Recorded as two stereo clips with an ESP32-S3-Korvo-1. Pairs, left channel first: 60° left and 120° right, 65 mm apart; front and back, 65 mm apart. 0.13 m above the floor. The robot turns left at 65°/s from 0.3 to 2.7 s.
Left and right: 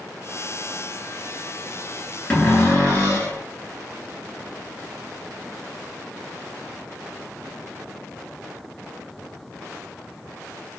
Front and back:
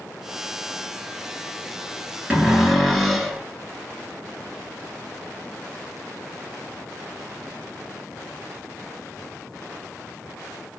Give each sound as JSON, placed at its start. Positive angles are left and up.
{"t": 2.3, "sound": "a cupboard door", "azimuth_deg": 120, "distance_m": 1.0}